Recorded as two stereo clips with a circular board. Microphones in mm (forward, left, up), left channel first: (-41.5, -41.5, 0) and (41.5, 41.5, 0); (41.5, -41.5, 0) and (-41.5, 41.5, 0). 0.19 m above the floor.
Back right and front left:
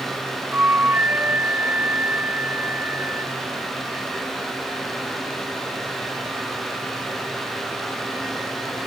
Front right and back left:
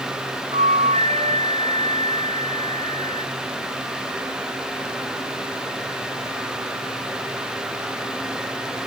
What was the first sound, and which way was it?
A flute, 120° left.